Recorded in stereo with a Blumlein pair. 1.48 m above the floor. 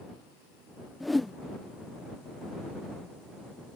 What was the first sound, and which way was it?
A whoosh, 5° left.